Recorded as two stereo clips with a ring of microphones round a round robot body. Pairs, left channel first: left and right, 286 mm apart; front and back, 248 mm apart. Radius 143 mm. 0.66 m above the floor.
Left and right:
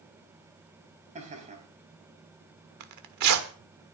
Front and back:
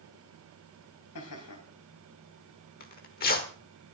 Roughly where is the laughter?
Ahead right.